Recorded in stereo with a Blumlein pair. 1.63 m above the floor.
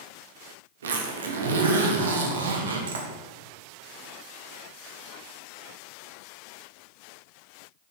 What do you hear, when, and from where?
0.8 s a zipper: 65° right, 0.6 m